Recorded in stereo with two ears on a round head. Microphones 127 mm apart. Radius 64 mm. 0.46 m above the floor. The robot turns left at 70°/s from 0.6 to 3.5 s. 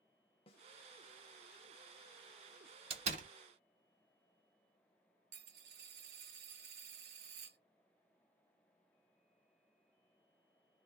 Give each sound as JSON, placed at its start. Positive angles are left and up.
{"t": 0.5, "sound": "a snare drum", "side_deg": 40, "distance_m": 0.8}
{"t": 2.9, "sound": "a door slam", "side_deg": -40, "distance_m": 1.3}
{"t": 5.3, "sound": "a dropped coin", "side_deg": -70, "distance_m": 1.1}